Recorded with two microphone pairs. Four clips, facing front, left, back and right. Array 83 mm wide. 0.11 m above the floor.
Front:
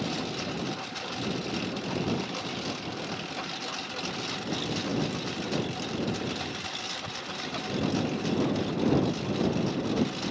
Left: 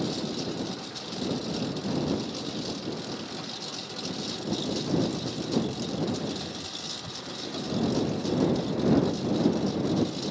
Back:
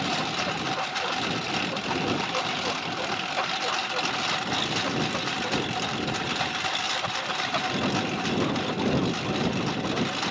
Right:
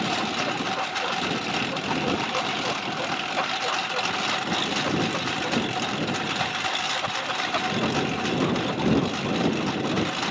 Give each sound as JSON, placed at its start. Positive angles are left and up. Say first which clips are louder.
{"t": 0.0, "sound": "a lawn mower", "louder": "right 5 dB, back 4 dB", "azimuth_deg": -125}